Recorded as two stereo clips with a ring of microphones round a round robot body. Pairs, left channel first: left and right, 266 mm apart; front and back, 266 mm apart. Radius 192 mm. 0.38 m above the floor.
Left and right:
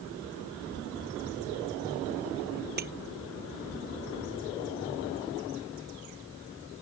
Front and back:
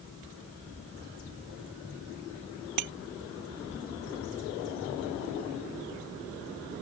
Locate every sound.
2.8 s breaking glass: 155° right